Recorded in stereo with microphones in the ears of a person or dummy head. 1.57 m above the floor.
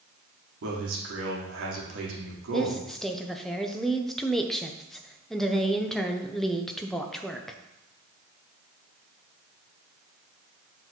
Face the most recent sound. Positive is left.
turn(degrees=0)  # may be behind; listen again after turning